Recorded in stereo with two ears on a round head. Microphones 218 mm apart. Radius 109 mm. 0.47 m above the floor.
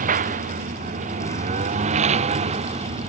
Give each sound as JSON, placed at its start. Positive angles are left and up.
{"t": 0.0, "sound": "a lawn mower", "side_deg": -35}